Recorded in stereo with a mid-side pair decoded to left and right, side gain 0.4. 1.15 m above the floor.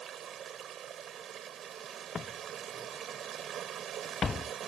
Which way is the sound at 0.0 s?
65° right.